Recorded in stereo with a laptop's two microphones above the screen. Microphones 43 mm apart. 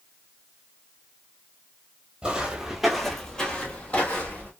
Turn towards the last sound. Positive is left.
turn(degrees=40)  # may be behind; listen again after turning